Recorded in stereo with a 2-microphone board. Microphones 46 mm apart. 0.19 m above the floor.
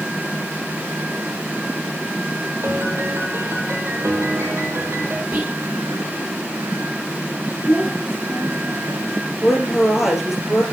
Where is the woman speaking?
5° right (ahead or behind), 5 m.